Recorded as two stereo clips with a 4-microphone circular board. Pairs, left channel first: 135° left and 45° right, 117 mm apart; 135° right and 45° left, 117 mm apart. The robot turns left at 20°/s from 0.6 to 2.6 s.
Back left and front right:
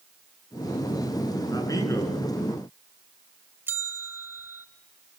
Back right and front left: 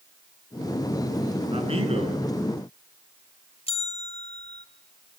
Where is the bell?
115° right, 2.5 m.